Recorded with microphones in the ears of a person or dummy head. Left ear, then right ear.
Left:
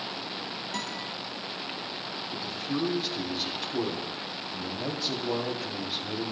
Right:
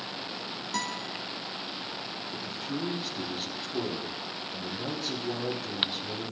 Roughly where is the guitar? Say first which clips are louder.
Right 4 dB; centre.